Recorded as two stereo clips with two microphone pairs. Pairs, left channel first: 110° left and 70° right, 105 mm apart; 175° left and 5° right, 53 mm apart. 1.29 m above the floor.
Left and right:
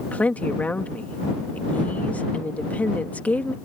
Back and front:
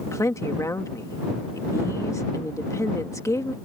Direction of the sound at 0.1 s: 175° right.